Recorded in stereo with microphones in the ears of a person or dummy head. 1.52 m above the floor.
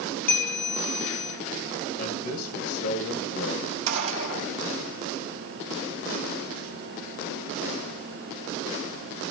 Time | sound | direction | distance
0.3 | a bell | 10° left (ahead or behind) | 3.5 m
2.0 | a man speaking | 55° left (ahead or behind) | 2 m
3.9 | a gunshot | 85° right | 2.5 m